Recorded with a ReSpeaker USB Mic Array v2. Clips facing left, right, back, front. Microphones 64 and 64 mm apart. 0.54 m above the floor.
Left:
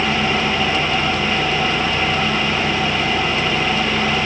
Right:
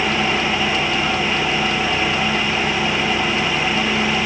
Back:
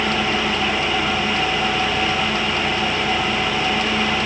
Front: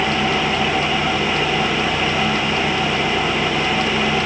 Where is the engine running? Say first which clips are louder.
Left 1 dB, front 2 dB; straight ahead, 6 m.